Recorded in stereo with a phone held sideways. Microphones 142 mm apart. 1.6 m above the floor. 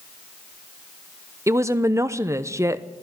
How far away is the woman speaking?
About 0.7 m.